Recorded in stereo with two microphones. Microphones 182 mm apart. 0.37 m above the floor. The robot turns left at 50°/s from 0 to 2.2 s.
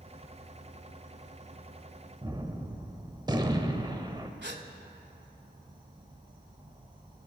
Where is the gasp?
75° right (ahead or behind), 0.7 m.